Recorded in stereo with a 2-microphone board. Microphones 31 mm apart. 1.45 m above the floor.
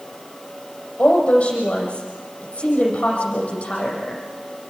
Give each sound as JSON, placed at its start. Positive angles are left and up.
{"t": 1.0, "sound": "a woman speaking", "side_deg": 45, "distance_m": 8.5}